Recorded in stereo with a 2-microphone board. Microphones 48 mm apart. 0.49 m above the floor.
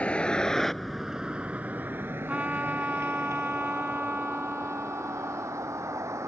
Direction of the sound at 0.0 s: 25° left (ahead or behind).